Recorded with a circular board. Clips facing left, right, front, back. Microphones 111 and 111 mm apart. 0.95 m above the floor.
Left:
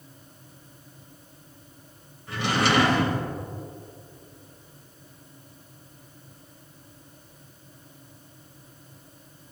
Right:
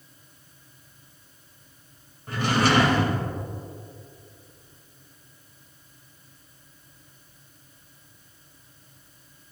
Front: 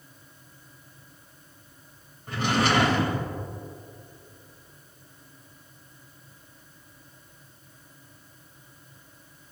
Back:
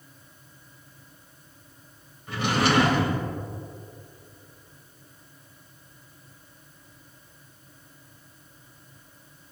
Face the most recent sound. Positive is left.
turn(degrees=-50)